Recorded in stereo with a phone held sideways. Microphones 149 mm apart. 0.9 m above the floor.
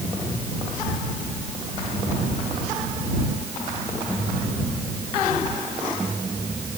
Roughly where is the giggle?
I don't hear a giggle.